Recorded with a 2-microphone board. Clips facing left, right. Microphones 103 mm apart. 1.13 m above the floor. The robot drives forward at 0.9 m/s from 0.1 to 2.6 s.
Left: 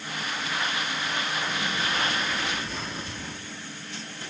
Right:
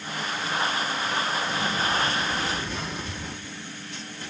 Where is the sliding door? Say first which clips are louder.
Right 3 dB; centre (ahead or behind), 1.8 m.